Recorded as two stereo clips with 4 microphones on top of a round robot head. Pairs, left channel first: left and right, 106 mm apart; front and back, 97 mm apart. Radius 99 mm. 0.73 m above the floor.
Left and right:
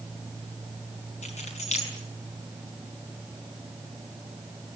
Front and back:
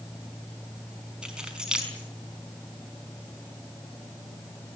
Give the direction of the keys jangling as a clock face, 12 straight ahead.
9 o'clock.